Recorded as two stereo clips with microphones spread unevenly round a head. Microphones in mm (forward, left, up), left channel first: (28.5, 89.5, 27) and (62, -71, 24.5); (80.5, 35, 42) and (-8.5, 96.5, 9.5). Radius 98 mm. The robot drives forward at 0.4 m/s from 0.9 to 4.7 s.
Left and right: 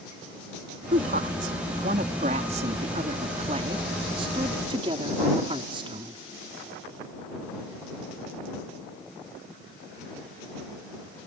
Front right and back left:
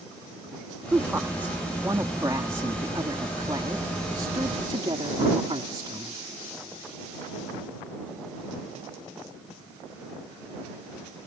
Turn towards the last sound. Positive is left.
turn(degrees=-145)